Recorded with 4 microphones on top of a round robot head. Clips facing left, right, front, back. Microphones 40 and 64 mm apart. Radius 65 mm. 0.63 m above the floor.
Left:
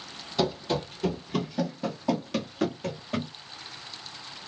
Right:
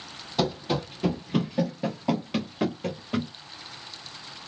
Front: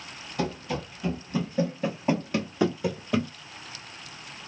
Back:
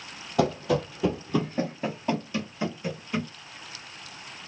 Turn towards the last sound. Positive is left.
turn(degrees=0)